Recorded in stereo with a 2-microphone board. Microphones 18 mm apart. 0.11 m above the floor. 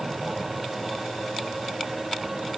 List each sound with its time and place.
Only background noise.